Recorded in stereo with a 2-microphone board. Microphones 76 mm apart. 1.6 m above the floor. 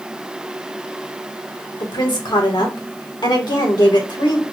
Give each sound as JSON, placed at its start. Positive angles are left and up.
{"t": 1.8, "sound": "a woman speaking", "side_deg": 80, "distance_m": 1.6}